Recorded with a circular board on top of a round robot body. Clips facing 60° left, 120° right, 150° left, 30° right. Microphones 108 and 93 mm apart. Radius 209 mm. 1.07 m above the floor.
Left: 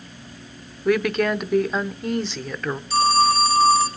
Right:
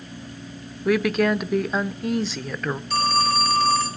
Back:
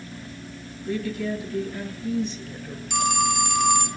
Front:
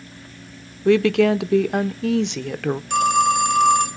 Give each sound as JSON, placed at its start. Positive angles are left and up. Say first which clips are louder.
{"t": 0.8, "sound": "a woman speaking", "louder": "even, front 13 dB", "azimuth_deg": -30, "distance_m": 0.8}
{"t": 2.9, "sound": "a phone ringing", "louder": "left 4 dB, front 6 dB", "azimuth_deg": -80, "distance_m": 1.7}